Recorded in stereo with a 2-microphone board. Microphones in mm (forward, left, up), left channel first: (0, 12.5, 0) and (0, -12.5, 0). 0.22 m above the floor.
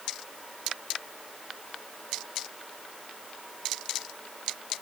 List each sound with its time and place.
Only background noise.